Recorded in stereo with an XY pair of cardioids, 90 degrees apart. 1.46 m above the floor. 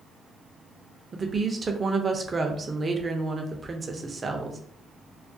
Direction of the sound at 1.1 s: 35° right.